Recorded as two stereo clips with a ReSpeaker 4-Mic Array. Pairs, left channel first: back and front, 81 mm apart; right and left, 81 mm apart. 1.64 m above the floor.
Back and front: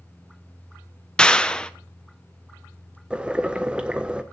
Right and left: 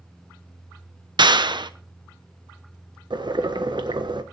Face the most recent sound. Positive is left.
turn(degrees=75)